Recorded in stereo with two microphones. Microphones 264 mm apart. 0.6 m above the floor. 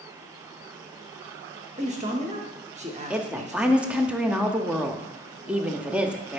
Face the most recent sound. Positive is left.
turn(degrees=-5)  # may be behind; listen again after turning